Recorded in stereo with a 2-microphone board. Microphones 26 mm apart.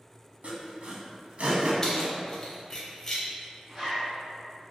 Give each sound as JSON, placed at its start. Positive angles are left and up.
{"t": 0.4, "sound": "sawing", "side_deg": -60, "distance_m": 0.5}
{"t": 1.8, "sound": "keys jangling", "side_deg": 20, "distance_m": 0.6}
{"t": 3.7, "sound": "a zipper", "side_deg": -20, "distance_m": 1.2}